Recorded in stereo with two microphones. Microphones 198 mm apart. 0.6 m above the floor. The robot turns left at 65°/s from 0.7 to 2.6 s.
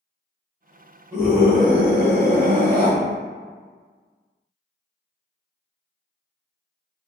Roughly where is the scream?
Ahead.